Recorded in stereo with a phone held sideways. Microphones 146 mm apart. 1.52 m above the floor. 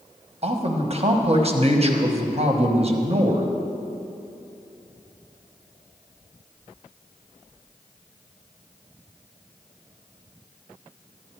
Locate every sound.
0.4 s a man speaking: 45° right (ahead or behind), 1.1 m